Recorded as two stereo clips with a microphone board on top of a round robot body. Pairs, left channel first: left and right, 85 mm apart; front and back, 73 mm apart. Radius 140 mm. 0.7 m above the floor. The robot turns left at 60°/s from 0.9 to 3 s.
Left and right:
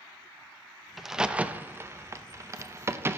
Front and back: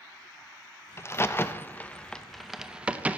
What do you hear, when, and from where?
1.0 s a crack: straight ahead, 0.8 m; by 3.2 s 125° right, 0.8 m